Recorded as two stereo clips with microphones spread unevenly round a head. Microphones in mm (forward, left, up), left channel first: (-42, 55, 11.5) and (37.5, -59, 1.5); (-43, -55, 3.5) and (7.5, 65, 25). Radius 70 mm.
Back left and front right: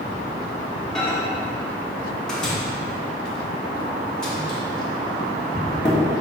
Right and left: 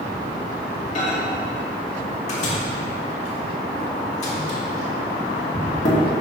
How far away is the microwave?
About 2.5 m.